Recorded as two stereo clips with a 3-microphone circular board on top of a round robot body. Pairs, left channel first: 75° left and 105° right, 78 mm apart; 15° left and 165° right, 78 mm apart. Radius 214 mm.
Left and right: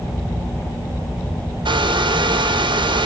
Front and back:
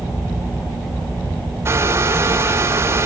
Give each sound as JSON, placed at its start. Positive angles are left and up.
{"t": 1.6, "sound": "a hair dryer", "azimuth_deg": -105, "distance_m": 2.5}